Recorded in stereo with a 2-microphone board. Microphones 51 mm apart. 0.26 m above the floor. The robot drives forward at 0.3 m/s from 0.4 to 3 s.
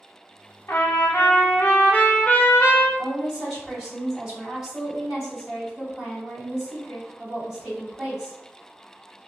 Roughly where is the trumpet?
Left.